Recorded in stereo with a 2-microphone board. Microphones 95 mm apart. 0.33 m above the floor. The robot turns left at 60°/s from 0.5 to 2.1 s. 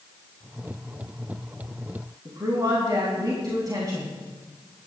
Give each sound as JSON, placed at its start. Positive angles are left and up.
{"t": 2.2, "sound": "a woman speaking", "side_deg": -45, "distance_m": 3.0}